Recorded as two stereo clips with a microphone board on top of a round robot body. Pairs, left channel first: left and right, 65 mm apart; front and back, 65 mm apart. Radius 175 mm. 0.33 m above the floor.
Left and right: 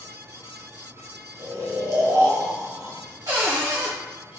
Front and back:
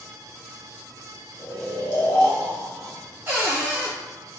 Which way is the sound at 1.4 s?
55° right.